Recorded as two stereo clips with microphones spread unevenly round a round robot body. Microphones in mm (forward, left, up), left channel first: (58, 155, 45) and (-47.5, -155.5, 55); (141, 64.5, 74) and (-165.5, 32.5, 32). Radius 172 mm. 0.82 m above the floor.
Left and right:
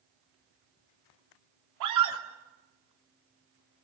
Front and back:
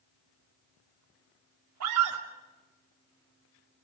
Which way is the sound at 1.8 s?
140° right.